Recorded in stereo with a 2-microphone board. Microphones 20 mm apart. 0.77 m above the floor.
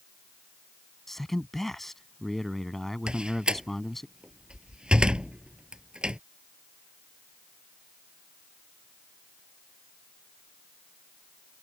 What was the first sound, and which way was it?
A man speaking, 15° left (ahead or behind).